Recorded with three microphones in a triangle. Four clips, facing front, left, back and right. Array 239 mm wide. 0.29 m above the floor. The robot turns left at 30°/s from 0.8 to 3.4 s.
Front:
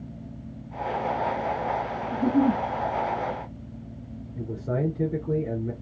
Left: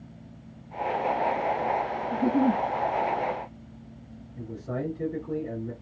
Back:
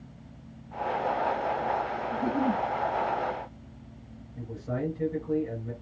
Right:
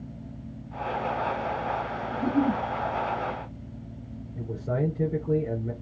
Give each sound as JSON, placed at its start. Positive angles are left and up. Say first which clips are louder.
{"t": 2.1, "sound": "a giggle", "louder": "left 1 dB, front 6 dB", "azimuth_deg": 55, "distance_m": 0.7}
{"t": 4.3, "sound": "a man speaking", "louder": "right 4 dB, front 4 dB", "azimuth_deg": -35, "distance_m": 3.0}